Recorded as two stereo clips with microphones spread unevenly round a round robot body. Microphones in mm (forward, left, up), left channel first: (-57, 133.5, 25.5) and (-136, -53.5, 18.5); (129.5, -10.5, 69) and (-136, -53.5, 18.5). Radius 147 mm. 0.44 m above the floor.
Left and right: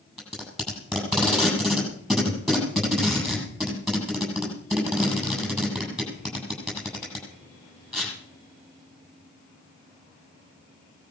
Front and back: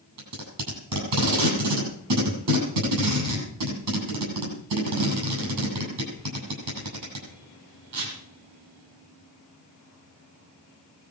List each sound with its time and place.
0.2 s tape being pulled: 155° left, 8 m